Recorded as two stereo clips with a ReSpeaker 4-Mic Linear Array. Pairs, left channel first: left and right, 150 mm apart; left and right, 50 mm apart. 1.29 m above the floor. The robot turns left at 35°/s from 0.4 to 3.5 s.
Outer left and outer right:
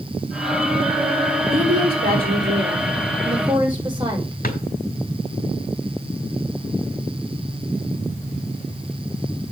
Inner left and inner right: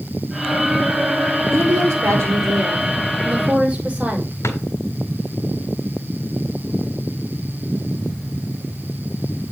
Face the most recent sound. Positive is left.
turn(degrees=70)  # may be behind; listen again after turning